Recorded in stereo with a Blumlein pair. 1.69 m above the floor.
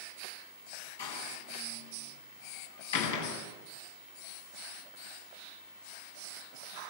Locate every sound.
1.0 s a door slam: 60° left, 9 m